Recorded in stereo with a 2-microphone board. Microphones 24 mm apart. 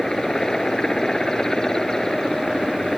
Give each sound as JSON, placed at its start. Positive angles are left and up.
{"t": 0.0, "sound": "a helicopter", "side_deg": 25}